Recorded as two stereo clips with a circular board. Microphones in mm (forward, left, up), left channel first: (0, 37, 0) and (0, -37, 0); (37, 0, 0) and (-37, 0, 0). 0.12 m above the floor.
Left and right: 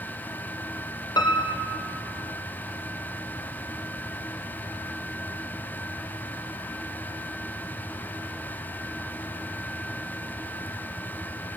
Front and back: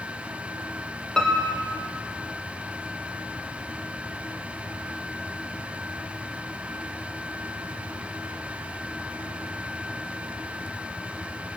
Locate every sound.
1.2 s a piano: 85° left, 3 m